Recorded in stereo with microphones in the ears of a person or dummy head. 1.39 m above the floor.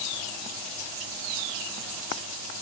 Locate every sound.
Only background noise.